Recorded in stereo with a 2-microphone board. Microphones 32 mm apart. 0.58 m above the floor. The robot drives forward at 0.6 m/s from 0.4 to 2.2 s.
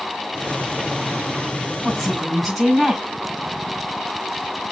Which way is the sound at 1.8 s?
10° left (ahead or behind).